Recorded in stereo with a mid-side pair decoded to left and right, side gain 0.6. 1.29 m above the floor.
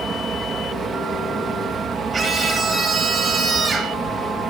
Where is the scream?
30° right, 4.5 m.